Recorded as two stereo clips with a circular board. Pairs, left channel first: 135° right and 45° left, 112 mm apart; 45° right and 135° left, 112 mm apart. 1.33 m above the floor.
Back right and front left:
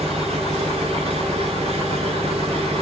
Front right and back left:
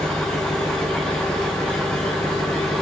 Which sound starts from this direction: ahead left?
An engine running, at 0.0 s.